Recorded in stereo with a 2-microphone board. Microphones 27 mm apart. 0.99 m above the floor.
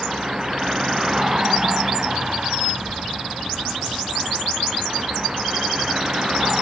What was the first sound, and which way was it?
A vehicle, 15° right (ahead or behind).